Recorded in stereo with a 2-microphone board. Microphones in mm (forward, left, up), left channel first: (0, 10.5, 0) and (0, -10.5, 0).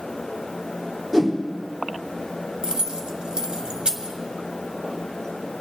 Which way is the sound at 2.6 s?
50° right (ahead or behind).